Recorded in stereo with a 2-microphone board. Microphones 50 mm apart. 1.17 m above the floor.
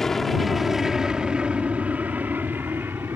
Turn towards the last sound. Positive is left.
turn(degrees=-50)  # may be behind; listen again after turning